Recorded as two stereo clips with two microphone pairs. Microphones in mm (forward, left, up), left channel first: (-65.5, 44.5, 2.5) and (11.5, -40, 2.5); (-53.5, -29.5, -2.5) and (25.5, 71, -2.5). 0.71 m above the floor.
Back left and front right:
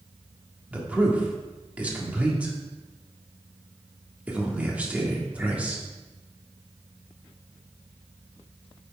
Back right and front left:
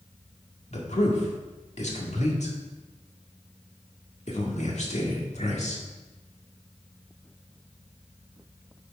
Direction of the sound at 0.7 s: 125° right.